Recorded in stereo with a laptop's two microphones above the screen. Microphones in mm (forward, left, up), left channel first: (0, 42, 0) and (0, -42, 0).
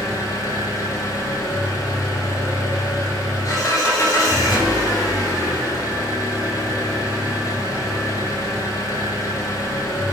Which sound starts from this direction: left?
An engine running, at 0.0 s.